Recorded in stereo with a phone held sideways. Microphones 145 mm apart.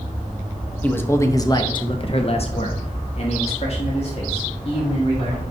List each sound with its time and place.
0.8 s a man speaking: 10° left (ahead or behind), 1.1 m; by 5.4 s 40° left (ahead or behind), 2.5 m